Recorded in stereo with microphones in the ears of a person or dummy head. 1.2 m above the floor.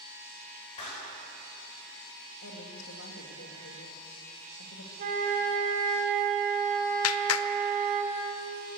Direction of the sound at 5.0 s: 40° right (ahead or behind).